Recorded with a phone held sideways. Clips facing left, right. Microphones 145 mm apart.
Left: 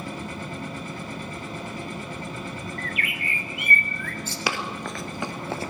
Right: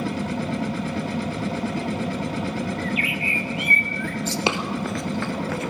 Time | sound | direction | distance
0.0 | a machine running | 75° right (ahead or behind) | 1.5 m
2.8 | a bird | 55° left (ahead or behind) | 1.8 m
4.5 | running footsteps | 20° right (ahead or behind) | 1.4 m